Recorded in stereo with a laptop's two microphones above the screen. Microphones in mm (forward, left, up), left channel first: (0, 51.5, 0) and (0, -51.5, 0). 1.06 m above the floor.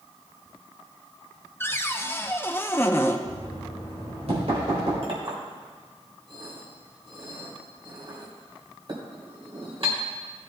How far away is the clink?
About 3 m.